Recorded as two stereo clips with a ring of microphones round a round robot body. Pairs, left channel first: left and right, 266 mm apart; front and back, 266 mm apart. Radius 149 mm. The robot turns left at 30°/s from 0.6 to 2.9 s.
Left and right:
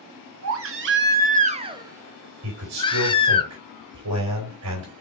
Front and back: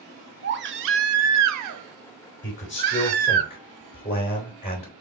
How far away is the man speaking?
About 3 m.